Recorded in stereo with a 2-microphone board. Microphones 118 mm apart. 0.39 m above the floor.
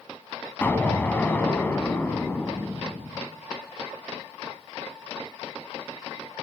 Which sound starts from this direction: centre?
An explosion, at 0.6 s.